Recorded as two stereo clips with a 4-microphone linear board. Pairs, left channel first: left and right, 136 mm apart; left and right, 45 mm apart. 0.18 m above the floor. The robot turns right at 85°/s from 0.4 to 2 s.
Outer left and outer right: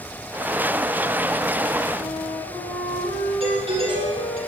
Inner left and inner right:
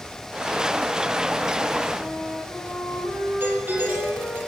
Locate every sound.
2.0 s a flute: 35° left (ahead or behind), 7.5 m; by 4.4 s 40° left (ahead or behind), 7.5 m
3.4 s a doorbell: 45° right (ahead or behind), 7 m